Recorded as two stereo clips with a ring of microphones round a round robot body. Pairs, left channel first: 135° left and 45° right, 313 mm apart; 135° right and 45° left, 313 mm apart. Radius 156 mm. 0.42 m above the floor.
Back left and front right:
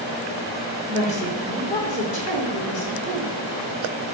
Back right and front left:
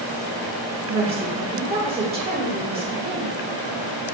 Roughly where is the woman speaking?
Left.